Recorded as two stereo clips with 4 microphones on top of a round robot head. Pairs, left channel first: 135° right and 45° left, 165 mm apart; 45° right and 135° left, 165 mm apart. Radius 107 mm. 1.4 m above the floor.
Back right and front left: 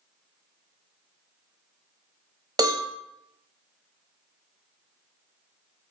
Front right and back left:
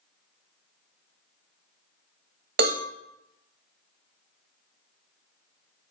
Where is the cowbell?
110° left, 0.7 m.